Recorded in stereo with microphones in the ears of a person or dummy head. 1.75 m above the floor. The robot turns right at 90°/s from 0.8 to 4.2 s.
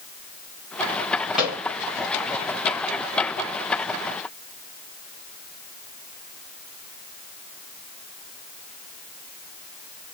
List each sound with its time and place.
1.4 s a microwave: 5° left (ahead or behind), 1.6 m; by 1.6 s 20° right (ahead or behind), 1.6 m